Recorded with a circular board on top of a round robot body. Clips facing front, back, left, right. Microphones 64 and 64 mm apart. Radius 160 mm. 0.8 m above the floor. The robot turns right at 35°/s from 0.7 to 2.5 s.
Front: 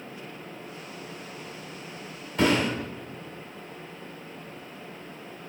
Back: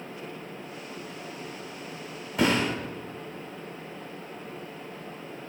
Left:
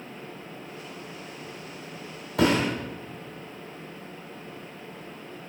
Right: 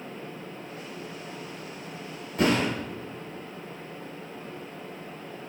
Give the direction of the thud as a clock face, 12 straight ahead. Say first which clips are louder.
Front 1 dB, left 1 dB; 9 o'clock.